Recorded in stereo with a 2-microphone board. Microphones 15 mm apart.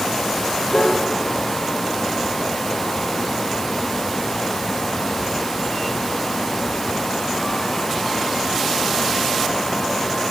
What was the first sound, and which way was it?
A piano, 55° left (ahead or behind).